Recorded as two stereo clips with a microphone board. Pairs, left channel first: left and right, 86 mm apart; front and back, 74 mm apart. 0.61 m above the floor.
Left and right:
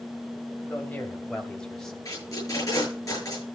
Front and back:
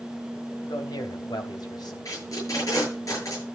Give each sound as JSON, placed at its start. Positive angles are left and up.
{"t": 0.6, "sound": "a man speaking", "azimuth_deg": 25, "distance_m": 3.0}
{"t": 2.0, "sound": "tape being pulled", "azimuth_deg": 40, "distance_m": 8.5}